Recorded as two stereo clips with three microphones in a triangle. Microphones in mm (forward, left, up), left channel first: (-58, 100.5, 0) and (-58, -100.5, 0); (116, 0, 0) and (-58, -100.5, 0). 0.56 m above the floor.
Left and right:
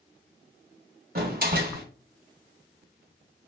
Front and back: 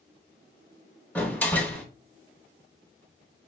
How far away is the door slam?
About 1.2 m.